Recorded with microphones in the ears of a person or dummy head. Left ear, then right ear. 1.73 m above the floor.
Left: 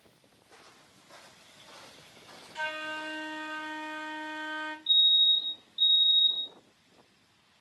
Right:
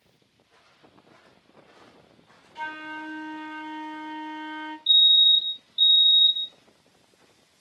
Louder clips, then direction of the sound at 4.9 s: Right 6 dB; 30° right (ahead or behind).